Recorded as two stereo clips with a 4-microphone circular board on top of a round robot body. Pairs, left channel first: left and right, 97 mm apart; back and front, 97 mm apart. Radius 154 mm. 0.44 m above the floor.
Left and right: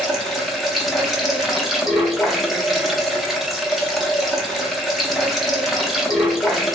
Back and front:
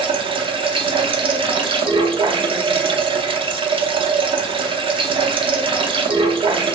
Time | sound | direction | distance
0.0 | running water | straight ahead | 0.9 m